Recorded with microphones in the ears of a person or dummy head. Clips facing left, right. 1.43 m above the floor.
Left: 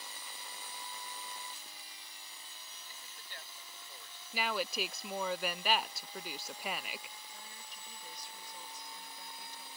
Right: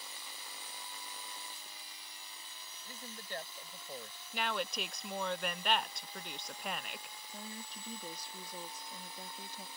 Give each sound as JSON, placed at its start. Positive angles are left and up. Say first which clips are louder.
{"t": 2.9, "sound": "a man speaking", "louder": "right 15 dB", "side_deg": -40}
{"t": 4.3, "sound": "a woman speaking", "louder": "left 1 dB", "side_deg": 5}
{"t": 7.3, "sound": "a woman speaking", "louder": "right 7 dB", "side_deg": -25}